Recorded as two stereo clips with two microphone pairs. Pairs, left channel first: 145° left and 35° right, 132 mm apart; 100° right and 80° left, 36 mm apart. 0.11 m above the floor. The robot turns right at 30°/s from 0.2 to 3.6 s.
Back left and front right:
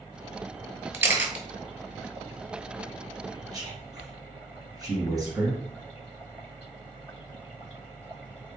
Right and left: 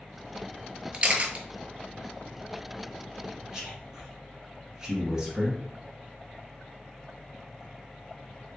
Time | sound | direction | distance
0.9 | a camera shutter | 30° left | 0.8 m
3.5 | a man speaking | 10° left | 2.0 m